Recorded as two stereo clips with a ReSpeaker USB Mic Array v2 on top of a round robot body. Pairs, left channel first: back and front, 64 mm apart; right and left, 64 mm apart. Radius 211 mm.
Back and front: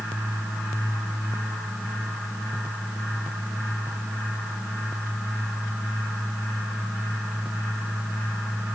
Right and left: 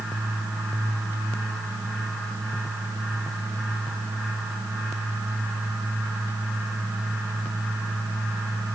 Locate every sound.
Only background noise.